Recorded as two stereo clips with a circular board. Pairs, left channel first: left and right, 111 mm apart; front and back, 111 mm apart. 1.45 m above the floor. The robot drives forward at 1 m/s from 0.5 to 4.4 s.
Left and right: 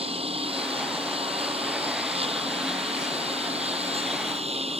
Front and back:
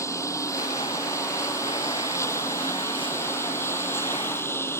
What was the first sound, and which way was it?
A lawn mower, 60° right.